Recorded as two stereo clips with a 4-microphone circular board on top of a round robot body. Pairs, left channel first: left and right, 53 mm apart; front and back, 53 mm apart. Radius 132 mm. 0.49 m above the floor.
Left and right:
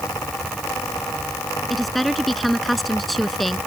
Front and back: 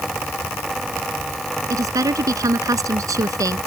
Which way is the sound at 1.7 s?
Straight behind.